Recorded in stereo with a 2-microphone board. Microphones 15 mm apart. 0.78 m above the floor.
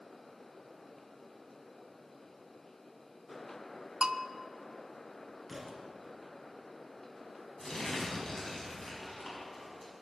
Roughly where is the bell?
Right.